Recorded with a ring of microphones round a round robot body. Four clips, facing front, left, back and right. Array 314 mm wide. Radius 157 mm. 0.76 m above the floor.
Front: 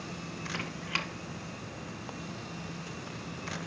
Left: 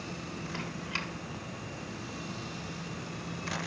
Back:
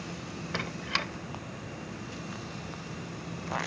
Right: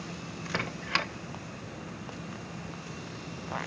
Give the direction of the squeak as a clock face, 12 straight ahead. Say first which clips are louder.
Right 9 dB, back 4 dB; 3 o'clock.